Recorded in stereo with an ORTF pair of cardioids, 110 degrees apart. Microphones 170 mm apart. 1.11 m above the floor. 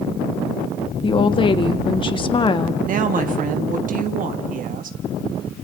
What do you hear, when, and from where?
1.0 s a woman speaking: 25° left, 1.5 m
2.9 s a woman speaking: 50° right, 1.4 m